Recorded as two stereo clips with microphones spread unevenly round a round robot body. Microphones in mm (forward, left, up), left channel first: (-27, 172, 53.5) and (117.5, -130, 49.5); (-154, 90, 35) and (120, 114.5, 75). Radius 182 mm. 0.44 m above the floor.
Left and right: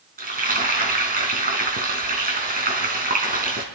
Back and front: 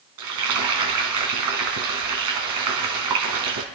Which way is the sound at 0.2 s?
Straight ahead.